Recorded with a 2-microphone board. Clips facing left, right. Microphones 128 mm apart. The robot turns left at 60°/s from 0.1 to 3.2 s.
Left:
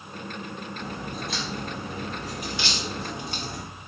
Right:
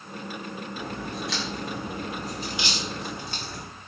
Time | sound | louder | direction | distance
0.8 | a crack | right 1 dB | 50° right (ahead or behind) | 2 m